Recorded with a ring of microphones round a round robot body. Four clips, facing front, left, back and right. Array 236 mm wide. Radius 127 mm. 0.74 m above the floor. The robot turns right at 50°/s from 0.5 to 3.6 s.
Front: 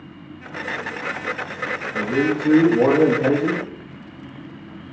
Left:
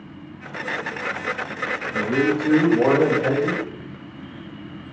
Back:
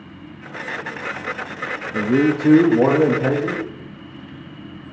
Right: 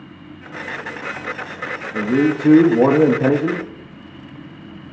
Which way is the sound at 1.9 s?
155° right.